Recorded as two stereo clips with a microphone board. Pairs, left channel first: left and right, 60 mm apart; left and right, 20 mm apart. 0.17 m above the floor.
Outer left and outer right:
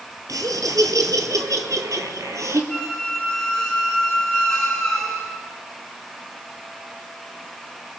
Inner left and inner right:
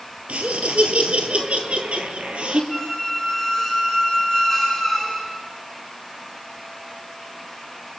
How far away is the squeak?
About 8 m.